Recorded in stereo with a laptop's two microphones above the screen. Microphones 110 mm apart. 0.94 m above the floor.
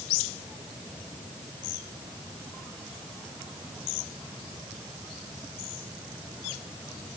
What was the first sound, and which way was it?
Only background noise.